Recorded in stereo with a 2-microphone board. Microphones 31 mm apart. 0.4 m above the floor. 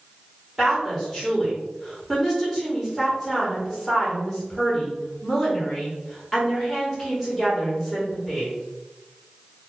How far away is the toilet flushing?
No toilet flushing in this recording.